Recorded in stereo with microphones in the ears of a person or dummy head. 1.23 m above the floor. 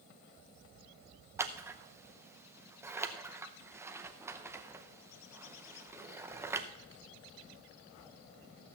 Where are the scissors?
15° right (ahead or behind), 0.6 m.